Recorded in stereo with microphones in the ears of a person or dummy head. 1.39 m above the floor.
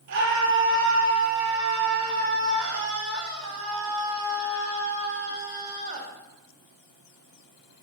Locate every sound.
0.1 s a scream: 75° right (ahead or behind), 3.5 m; by 6.1 s 35° right (ahead or behind), 1.7 m